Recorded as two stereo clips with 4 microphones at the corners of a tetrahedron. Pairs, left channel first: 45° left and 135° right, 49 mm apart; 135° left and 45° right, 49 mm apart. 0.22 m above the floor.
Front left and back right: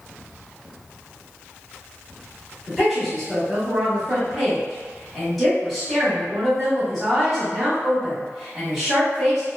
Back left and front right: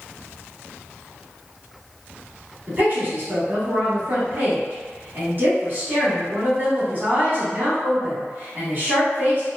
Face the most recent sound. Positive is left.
turn(degrees=-45)